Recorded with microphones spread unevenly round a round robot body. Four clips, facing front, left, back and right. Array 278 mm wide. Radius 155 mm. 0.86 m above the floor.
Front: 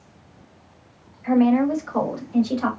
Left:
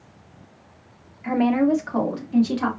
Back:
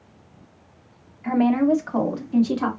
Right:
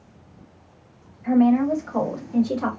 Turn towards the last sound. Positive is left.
turn(degrees=165)